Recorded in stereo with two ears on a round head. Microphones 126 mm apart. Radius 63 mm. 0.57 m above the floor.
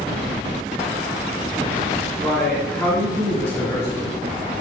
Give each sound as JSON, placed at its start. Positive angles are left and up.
{"t": 2.2, "sound": "a man speaking", "side_deg": 0, "distance_m": 5.5}